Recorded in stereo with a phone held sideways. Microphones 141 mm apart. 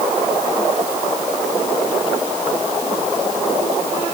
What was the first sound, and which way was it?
Only background noise.